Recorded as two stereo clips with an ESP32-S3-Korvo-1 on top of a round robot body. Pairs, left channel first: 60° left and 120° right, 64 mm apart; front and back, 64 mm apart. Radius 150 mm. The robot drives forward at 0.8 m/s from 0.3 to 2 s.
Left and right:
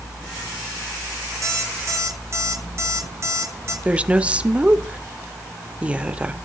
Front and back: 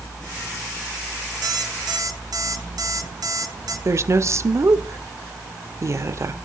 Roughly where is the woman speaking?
Behind.